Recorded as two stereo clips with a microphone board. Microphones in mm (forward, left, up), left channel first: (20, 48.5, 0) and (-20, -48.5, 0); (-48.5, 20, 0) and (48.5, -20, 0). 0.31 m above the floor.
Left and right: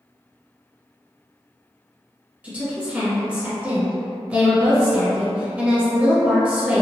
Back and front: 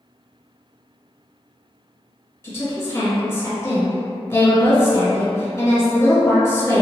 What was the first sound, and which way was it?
A woman speaking, 175° right.